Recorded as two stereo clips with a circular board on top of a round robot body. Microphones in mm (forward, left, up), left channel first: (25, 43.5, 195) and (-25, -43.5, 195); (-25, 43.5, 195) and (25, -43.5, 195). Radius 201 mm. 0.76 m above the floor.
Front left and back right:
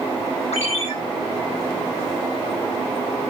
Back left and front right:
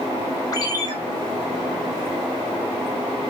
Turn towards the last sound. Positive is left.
turn(degrees=65)